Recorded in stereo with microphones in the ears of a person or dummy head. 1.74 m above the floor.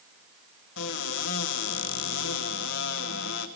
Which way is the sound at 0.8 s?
60° left (ahead or behind).